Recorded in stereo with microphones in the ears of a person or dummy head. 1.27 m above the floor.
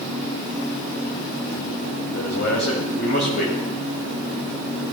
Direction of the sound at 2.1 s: 70° left (ahead or behind).